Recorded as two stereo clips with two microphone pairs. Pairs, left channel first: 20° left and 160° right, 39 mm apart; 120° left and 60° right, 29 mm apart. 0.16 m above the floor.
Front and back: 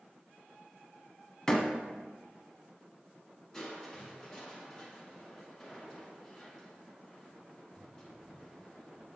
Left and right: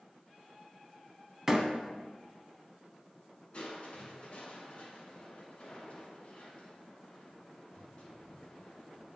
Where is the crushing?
90° left, 1.9 m.